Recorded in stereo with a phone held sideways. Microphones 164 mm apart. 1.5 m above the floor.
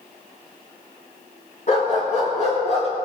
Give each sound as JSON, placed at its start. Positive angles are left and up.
{"t": 1.7, "sound": "a dog barking", "side_deg": 45, "distance_m": 5.5}